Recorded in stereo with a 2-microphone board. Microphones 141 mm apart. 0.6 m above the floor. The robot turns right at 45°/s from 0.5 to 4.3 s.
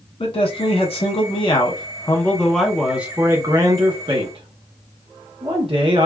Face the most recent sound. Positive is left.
turn(degrees=-110)